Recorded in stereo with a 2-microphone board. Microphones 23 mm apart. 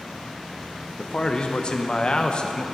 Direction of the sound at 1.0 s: 40° left (ahead or behind).